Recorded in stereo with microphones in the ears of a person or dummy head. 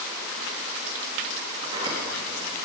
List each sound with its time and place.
1.6 s a sliding door: 30° right (ahead or behind), 1.5 m